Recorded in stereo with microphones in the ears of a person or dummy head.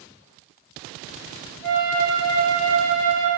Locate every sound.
1.6 s a flute: 15° left (ahead or behind), 1.4 m